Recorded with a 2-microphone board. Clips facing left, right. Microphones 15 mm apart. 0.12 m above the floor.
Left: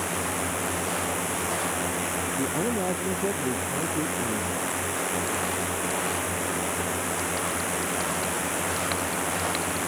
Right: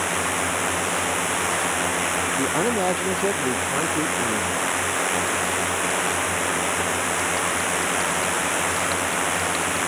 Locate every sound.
0.0 s a drone: 20° right (ahead or behind)
2.4 s a man speaking: 35° right (ahead or behind)